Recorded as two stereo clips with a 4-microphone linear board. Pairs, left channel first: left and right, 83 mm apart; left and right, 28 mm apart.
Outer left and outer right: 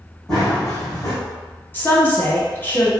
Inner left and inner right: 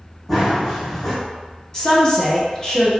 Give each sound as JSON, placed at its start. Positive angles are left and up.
{"t": 0.3, "sound": "running footsteps", "side_deg": 10, "distance_m": 1.7}
{"t": 1.7, "sound": "a woman speaking", "side_deg": 25, "distance_m": 0.9}